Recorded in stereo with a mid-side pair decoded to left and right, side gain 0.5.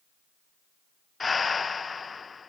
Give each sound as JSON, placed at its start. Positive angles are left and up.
{"t": 1.2, "sound": "breathing", "azimuth_deg": 30, "distance_m": 0.8}